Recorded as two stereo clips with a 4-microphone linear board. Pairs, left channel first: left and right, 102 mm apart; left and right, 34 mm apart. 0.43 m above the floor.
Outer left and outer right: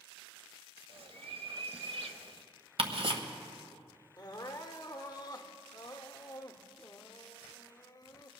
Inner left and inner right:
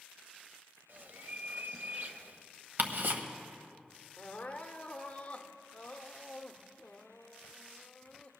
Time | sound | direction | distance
0.9 | a bird | 65° right (ahead or behind) | 0.8 m
2.8 | ticking | 65° right (ahead or behind) | 1.2 m
4.2 | crying | 40° left (ahead or behind) | 0.8 m